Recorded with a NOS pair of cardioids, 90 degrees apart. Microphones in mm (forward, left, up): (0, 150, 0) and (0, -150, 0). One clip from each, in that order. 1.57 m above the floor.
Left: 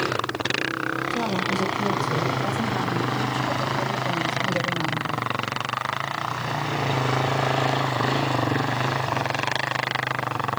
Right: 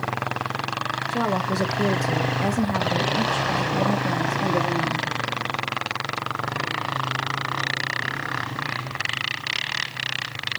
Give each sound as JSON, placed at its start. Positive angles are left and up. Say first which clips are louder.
{"t": 1.1, "sound": "a woman speaking", "louder": "right 1 dB", "azimuth_deg": -30, "distance_m": 1.9}